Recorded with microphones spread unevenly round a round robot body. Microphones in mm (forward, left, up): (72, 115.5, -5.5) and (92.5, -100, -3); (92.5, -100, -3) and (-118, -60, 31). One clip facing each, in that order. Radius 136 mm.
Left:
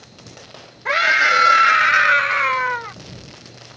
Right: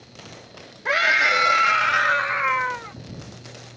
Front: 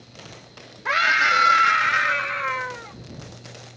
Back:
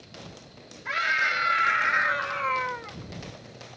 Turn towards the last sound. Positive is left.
turn(degrees=85)